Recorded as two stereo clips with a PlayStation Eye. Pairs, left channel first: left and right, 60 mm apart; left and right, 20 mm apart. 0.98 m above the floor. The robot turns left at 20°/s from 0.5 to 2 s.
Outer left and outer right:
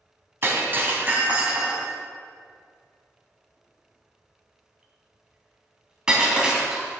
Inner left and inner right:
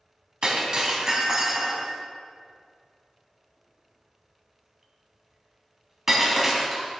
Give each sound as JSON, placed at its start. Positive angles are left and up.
{"t": 0.4, "sound": "breaking glass", "side_deg": -45, "distance_m": 2.0}